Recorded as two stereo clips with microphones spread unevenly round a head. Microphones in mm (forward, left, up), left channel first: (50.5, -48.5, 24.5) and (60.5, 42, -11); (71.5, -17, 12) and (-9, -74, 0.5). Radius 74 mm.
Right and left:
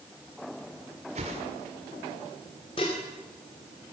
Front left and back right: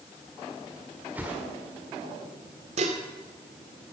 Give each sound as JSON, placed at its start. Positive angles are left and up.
{"t": 1.1, "sound": "a whoosh", "azimuth_deg": 135, "distance_m": 1.5}
{"t": 2.8, "sound": "dishes clattering", "azimuth_deg": -150, "distance_m": 2.0}